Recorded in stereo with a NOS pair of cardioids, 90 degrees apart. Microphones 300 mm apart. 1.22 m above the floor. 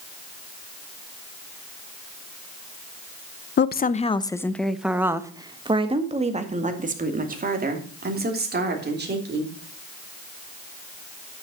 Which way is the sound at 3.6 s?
35° left.